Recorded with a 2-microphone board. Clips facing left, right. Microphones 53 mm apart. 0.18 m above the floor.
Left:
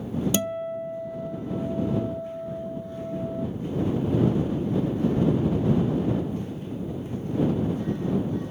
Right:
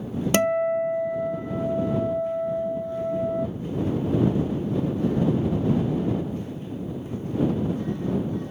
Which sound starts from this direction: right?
A guitar, at 0.3 s.